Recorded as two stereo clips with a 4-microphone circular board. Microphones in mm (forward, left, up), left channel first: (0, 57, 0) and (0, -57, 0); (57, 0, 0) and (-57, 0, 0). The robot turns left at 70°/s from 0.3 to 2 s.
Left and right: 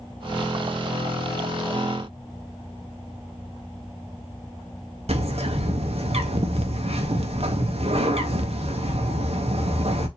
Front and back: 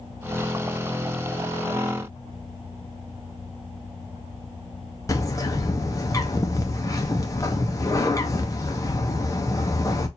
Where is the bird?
60° right, 0.9 m.